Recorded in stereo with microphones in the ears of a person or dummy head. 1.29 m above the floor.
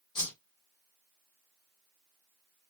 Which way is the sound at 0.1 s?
15° left (ahead or behind).